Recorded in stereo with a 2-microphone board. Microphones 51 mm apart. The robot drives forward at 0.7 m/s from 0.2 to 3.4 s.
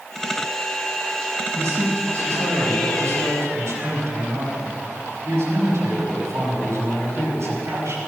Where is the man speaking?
80° right, 5.5 m; by 8.0 s 75° right (ahead or behind), 5.5 m.